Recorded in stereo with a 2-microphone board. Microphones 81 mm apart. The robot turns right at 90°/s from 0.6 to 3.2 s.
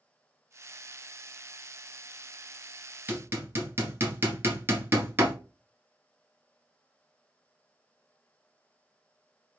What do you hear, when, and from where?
3.1 s hammering: 25° right (ahead or behind), 1.3 m; by 5.3 s 30° right (ahead or behind), 1.3 m